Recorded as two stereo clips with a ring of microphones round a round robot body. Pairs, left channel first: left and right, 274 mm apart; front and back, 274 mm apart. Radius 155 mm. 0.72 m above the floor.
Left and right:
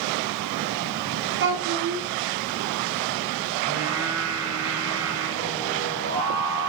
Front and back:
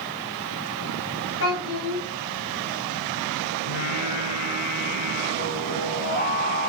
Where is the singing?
60° right, 5.5 m.